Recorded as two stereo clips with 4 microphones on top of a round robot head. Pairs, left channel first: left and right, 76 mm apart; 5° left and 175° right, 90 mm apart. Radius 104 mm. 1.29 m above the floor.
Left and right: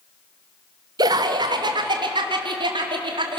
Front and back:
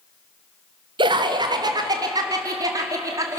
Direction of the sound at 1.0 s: 135° right.